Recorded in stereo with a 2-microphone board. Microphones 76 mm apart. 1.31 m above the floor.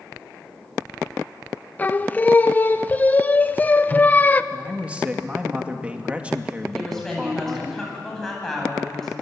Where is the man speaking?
15° right (ahead or behind), 2.5 m.